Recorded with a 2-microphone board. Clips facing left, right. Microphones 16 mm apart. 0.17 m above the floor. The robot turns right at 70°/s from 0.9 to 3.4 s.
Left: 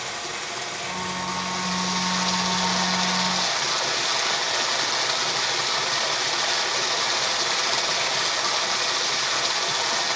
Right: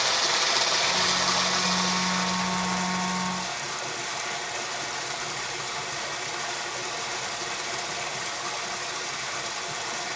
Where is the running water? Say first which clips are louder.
Right 7 dB; 65° right, 6 m; by 10.2 s 110° left, 6 m.